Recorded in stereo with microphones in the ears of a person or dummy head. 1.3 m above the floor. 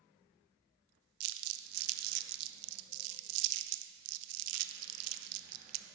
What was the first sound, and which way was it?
Crumpling, 85° right.